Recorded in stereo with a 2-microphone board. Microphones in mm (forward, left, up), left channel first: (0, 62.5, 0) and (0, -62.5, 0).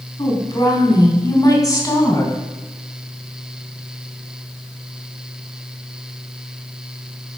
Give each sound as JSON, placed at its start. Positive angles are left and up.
{"t": 0.2, "sound": "a woman speaking", "side_deg": 35, "distance_m": 1.8}